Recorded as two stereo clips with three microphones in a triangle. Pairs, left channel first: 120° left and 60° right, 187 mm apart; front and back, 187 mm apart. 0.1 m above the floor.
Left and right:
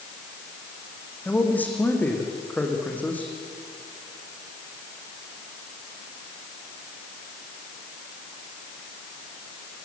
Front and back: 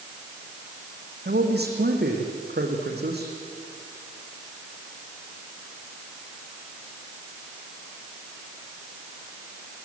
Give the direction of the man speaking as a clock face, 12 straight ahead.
5 o'clock.